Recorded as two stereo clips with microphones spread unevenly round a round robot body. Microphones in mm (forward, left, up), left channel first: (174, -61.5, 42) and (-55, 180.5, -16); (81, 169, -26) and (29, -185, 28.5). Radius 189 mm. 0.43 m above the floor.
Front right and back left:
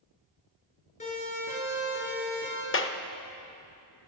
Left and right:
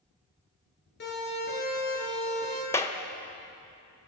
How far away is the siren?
About 9 m.